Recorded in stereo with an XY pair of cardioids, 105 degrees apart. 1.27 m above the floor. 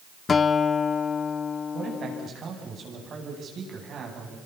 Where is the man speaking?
55° right, 10 m.